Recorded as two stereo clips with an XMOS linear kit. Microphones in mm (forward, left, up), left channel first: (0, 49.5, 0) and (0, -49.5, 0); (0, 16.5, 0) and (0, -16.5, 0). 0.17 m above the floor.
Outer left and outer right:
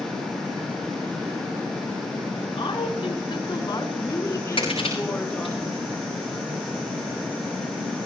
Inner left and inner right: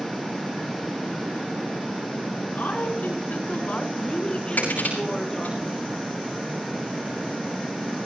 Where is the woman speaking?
60° left (ahead or behind), 2 m; by 5.6 s 10° left (ahead or behind), 2.5 m.